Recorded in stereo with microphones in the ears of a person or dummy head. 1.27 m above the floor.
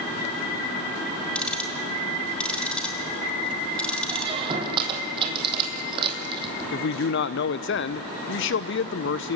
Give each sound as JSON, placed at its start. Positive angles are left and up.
{"t": 1.4, "sound": "ticking", "side_deg": 5, "distance_m": 3.5}
{"t": 4.1, "sound": "a squeak", "side_deg": -30, "distance_m": 3.5}
{"t": 6.7, "sound": "a man speaking", "side_deg": 60, "distance_m": 0.7}